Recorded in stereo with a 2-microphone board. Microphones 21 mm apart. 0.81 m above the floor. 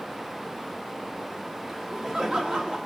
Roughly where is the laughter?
Centre.